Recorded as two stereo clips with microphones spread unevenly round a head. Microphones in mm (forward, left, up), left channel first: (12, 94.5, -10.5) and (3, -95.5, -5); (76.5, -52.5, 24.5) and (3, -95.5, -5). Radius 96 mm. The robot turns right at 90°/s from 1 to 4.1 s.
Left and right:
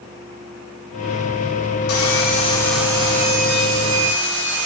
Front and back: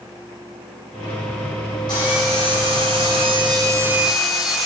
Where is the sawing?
100° left, 3.5 m; by 4.7 s 60° right, 3.5 m.